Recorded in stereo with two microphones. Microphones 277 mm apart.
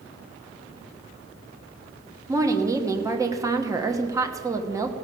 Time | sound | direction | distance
2.3 | a woman speaking | 10° right (ahead or behind) | 1.0 m